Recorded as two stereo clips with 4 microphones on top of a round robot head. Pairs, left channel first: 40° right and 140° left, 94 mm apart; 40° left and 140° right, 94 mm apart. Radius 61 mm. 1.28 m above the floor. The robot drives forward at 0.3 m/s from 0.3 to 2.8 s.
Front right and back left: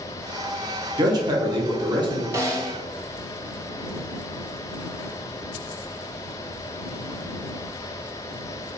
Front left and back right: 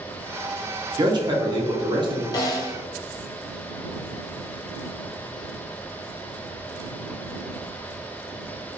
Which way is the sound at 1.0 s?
Straight behind.